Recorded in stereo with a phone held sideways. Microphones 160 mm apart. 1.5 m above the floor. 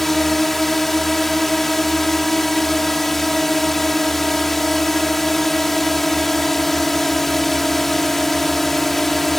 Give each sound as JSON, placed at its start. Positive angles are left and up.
{"t": 0.0, "sound": "a drone", "side_deg": 0}